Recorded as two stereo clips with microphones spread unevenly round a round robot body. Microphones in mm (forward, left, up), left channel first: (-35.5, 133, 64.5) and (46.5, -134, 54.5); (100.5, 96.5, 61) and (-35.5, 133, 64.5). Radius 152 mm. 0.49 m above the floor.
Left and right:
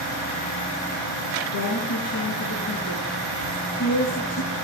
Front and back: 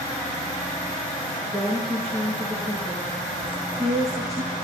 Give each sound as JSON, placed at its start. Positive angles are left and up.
{"t": 1.5, "sound": "a woman speaking", "azimuth_deg": 75, "distance_m": 7.0}
{"t": 3.4, "sound": "laughter", "azimuth_deg": 95, "distance_m": 9.0}